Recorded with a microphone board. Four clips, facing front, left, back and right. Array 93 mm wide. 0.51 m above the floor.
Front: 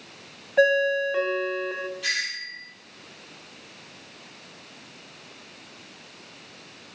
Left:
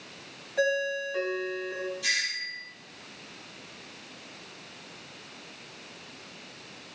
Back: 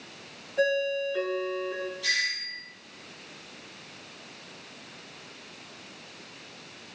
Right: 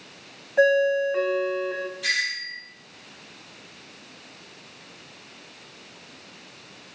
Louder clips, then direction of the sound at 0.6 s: Right 8 dB, front 6 dB; 30° right.